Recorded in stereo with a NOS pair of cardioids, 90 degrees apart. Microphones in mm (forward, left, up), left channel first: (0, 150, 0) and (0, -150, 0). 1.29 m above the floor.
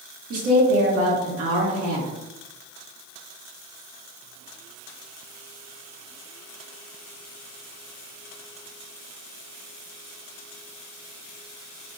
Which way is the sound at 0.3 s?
50° right.